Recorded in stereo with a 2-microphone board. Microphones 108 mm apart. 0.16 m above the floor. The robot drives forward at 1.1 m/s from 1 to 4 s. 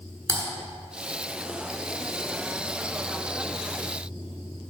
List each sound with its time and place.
0.3 s typing on a keyboard: 25° right (ahead or behind), 1.4 m